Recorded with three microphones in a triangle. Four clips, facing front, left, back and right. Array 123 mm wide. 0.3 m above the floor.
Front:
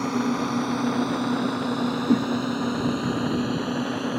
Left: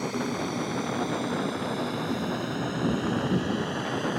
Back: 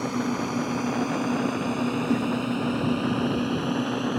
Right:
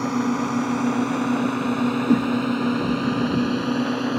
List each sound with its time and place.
0.0 s a drone: 60° right; by 4.2 s 85° right
2.1 s a whoosh: 55° right